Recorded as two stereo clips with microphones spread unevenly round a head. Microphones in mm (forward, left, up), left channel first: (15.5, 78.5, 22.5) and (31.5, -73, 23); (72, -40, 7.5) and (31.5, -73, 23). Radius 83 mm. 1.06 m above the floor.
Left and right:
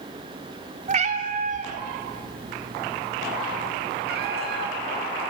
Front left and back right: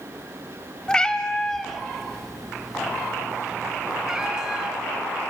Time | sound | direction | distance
0.9 | a cat meowing | 40° right | 1.7 m